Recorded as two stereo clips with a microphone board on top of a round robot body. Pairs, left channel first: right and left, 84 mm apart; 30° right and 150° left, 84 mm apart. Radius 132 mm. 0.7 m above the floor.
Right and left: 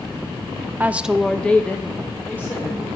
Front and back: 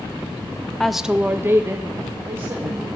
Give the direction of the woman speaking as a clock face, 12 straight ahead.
10 o'clock.